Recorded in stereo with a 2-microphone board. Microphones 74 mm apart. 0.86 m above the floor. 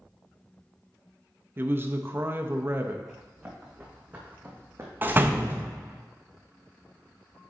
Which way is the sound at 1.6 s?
30° right (ahead or behind).